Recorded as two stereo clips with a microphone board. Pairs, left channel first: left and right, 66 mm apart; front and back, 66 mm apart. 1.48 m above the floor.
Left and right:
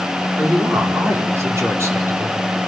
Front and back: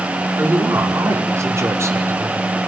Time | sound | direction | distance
0.4 | a woman speaking | 135° right | 5 m